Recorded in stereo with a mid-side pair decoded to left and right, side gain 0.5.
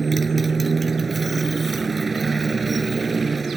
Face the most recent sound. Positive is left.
turn(degrees=-25)